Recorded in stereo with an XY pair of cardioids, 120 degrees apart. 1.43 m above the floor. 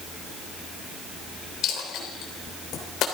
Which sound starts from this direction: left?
A dropped coin, at 1.6 s.